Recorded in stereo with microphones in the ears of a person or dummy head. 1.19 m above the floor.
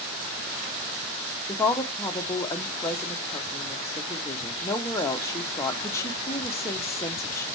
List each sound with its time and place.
1.5 s a woman speaking: 10° left (ahead or behind), 0.8 m